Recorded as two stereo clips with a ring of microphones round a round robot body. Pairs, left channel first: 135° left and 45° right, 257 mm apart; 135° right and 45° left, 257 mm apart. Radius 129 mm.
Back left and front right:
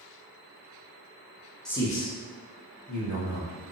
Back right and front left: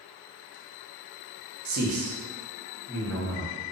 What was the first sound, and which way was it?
A man speaking, 50° left.